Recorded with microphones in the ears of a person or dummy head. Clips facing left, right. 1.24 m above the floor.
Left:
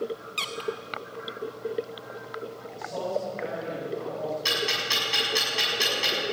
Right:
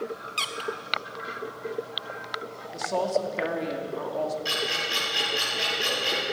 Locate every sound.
0.4 s a squeak: centre (ahead or behind), 0.7 m
2.7 s a woman speaking: 90° right, 2 m
4.5 s ticking: 80° left, 6.5 m